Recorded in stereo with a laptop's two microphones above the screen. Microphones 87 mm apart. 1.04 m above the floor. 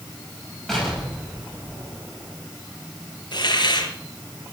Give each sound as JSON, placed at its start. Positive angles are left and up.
{"t": 0.7, "sound": "an explosion", "side_deg": 0, "distance_m": 9.0}
{"t": 3.3, "sound": "a hiss", "side_deg": 60, "distance_m": 3.5}